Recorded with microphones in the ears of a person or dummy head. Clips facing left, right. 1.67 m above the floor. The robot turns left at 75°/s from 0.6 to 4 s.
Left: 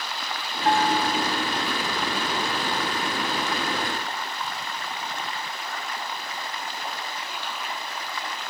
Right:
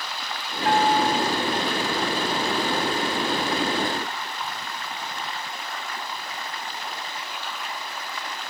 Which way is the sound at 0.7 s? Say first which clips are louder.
Right 2 dB; 150° left.